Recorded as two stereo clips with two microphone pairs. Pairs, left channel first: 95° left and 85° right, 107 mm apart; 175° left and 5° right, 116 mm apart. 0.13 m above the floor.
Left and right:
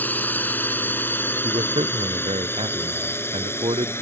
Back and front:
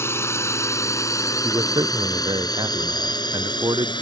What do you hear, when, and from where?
0.0 s a drone: 145° left; by 4.0 s 155° left
1.4 s a man speaking: 55° right